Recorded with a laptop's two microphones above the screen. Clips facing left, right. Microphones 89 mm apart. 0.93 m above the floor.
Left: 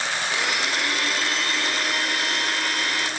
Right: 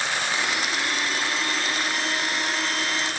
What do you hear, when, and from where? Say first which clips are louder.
0.3 s a blender: left 1 dB; 90° left, 2.5 m